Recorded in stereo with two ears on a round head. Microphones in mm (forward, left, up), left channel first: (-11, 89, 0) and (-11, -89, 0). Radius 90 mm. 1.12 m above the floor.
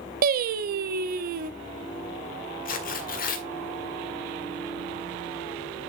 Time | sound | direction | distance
0.2 | singing | 50° right (ahead or behind) | 1.0 m
2.6 | tearing paper | 45° left (ahead or behind) | 1.7 m